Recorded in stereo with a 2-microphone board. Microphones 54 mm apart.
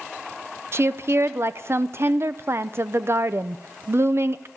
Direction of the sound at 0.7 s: 50° right (ahead or behind).